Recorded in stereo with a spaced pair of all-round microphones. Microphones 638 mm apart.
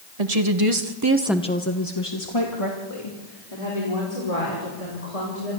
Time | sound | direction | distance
0.2 | a woman speaking | 70° right (ahead or behind) | 1.8 m